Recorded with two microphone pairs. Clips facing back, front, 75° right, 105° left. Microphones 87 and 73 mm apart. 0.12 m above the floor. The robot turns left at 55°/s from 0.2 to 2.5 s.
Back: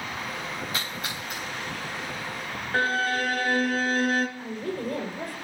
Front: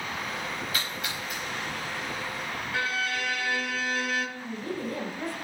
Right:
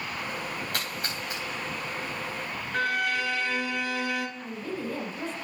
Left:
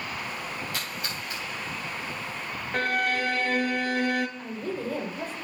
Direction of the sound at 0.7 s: 115° right.